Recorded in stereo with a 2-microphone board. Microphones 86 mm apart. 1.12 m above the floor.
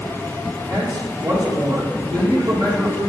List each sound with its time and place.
0.7 s a man speaking: 55° right (ahead or behind), 3 m